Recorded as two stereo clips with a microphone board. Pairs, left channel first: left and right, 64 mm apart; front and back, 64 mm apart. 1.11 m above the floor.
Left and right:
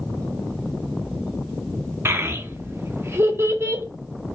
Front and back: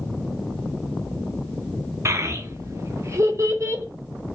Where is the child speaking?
140° right, 0.7 m.